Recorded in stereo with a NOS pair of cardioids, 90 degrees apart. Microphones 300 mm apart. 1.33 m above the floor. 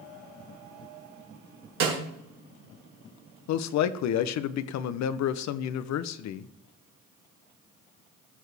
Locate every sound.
1.8 s a snare drum: 65° right, 2.5 m
3.5 s a man speaking: 70° left, 0.7 m